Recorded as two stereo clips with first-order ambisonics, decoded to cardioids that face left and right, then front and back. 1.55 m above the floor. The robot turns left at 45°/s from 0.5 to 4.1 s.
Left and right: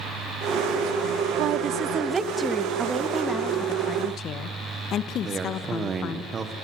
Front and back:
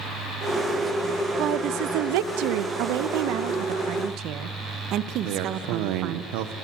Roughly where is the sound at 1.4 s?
Behind right.